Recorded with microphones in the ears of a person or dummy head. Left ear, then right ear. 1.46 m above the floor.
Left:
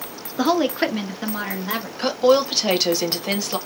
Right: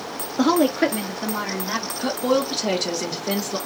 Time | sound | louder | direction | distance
0.4 | a woman speaking | right 1 dB | 5° left (ahead or behind) | 0.7 m
2.0 | a woman speaking | left 6 dB | 55° left (ahead or behind) | 1.5 m